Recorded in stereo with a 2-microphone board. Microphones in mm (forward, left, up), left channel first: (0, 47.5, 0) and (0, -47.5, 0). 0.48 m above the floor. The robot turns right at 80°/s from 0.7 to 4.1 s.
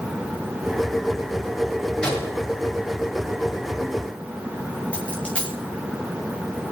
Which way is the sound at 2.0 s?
10° left (ahead or behind).